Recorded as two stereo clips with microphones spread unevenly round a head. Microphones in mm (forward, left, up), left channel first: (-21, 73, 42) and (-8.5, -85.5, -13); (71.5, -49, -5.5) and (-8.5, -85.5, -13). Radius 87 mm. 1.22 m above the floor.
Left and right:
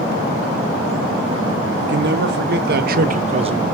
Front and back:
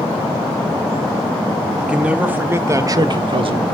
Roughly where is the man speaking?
Right.